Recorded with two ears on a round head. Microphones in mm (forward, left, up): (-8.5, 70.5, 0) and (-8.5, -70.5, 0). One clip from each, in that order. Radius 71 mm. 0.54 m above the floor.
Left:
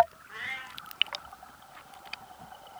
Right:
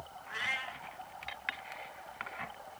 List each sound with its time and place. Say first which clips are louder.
0.3 s a cat meowing: right 2 dB; 40° right (ahead or behind), 1.6 m